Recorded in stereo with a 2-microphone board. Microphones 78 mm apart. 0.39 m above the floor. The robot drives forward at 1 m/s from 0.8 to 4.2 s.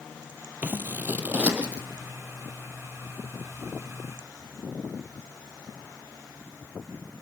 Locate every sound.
0.6 s scissors: 25° right (ahead or behind), 1.6 m; by 1.8 s 15° right (ahead or behind), 2.5 m